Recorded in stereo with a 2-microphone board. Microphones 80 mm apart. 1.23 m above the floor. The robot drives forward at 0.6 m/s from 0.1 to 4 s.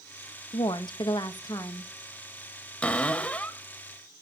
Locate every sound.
0.5 s a woman speaking: 90° left, 1.1 m; by 1.9 s 50° left (ahead or behind), 1.4 m
2.8 s a cupboard door: 15° left (ahead or behind), 1.6 m; by 3.6 s 20° left (ahead or behind), 1.1 m